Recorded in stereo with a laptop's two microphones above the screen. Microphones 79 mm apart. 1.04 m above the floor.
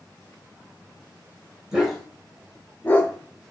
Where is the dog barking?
10° right (ahead or behind), 1.2 m; by 3.5 s 30° left (ahead or behind), 1.3 m.